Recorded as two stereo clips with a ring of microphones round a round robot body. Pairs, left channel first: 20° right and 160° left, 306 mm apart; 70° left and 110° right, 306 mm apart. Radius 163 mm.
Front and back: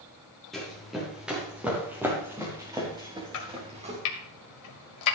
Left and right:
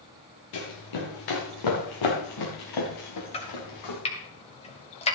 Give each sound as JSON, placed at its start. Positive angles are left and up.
{"t": 0.5, "sound": "running footsteps", "azimuth_deg": 65, "distance_m": 4.5}
{"t": 3.3, "sound": "chopping", "azimuth_deg": 0, "distance_m": 1.7}